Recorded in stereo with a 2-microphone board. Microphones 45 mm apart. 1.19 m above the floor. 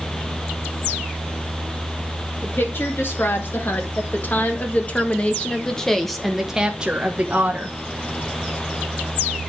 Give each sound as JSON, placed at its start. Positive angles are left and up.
{"t": 2.4, "sound": "a woman speaking", "side_deg": 55, "distance_m": 2.5}